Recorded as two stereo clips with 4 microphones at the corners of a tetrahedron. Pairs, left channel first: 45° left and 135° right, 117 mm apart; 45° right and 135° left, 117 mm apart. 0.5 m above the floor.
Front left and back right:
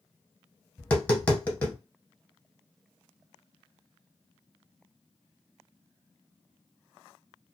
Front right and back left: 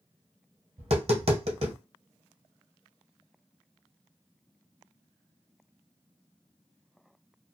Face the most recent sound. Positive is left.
turn(degrees=120)